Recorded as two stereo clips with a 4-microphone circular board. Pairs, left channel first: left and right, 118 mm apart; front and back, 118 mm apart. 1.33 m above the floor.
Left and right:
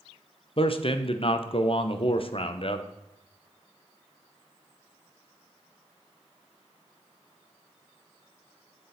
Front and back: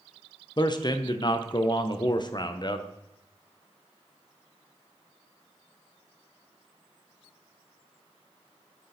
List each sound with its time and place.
0.6 s a man speaking: 50° left, 0.8 m